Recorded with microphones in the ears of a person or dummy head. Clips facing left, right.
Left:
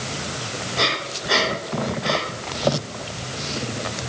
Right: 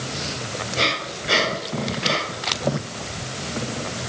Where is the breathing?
30° right (ahead or behind), 5.5 m.